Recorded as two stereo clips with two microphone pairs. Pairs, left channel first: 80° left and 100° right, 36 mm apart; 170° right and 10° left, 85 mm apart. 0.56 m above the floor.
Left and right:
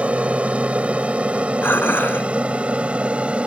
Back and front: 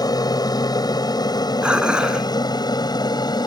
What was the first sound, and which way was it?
An aircraft, 150° right.